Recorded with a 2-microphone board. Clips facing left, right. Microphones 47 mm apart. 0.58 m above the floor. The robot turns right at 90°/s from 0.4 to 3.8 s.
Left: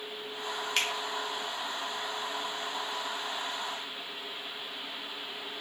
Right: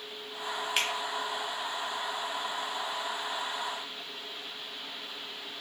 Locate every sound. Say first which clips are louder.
0.8 s a finger snap: even; 5° right (ahead or behind), 0.7 m; by 0.9 s 15° right (ahead or behind), 0.7 m